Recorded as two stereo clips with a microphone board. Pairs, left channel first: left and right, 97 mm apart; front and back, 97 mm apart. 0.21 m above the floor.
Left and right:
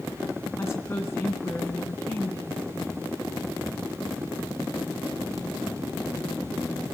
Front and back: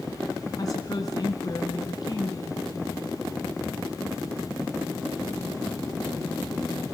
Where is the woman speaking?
35° left, 2.5 m.